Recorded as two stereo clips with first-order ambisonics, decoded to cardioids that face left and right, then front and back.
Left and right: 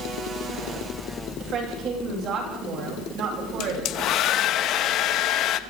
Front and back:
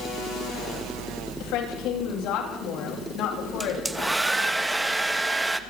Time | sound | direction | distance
1.4 | a woman speaking | 35° right | 9.5 m
3.6 | a hair dryer | 105° left | 1.2 m